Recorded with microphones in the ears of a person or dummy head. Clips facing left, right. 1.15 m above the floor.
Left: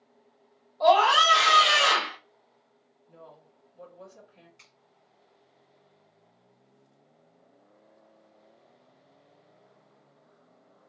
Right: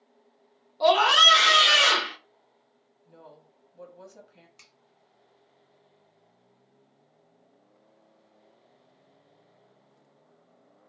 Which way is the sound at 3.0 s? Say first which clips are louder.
Even; 75° right (ahead or behind).